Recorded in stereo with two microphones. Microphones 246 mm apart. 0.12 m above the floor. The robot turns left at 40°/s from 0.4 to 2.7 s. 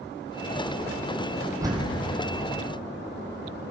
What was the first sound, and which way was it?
A door slam, 15° right (ahead or behind).